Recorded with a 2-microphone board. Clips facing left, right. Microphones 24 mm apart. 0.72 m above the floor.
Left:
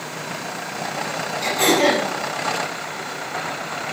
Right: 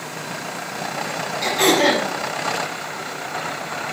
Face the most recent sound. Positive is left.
turn(degrees=-25)  # may be behind; listen again after turning